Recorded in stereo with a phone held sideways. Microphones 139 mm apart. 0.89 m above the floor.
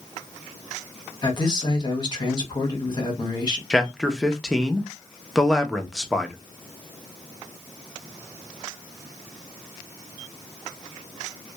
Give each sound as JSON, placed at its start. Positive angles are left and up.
{"t": 1.2, "sound": "a man speaking", "side_deg": 30, "distance_m": 1.0}
{"t": 3.7, "sound": "a man speaking", "side_deg": 0, "distance_m": 0.5}